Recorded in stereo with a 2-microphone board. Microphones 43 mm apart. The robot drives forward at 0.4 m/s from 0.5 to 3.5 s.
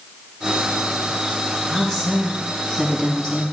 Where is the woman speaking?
15° left (ahead or behind), 2.5 m; by 3.4 s 10° left (ahead or behind), 3 m.